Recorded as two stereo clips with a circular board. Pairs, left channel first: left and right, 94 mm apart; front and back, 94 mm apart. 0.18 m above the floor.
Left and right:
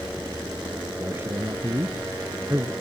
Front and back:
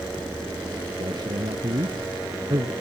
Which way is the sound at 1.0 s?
155° right.